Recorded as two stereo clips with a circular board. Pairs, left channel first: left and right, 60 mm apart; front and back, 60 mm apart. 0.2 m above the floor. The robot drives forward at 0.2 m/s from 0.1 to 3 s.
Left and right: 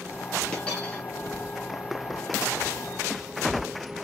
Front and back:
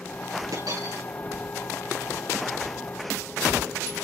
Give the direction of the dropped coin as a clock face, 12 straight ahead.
6 o'clock.